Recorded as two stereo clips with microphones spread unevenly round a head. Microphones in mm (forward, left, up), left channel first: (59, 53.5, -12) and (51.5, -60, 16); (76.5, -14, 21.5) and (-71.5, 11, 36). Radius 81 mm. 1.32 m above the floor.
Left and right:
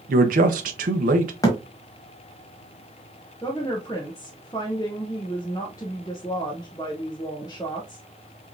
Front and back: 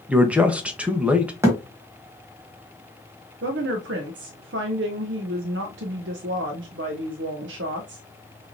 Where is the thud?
145° left, 1.2 m.